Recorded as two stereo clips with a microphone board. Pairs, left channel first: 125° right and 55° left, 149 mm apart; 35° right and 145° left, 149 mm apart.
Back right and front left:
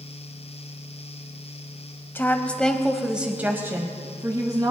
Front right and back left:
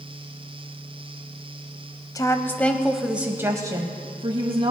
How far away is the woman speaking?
About 1.0 m.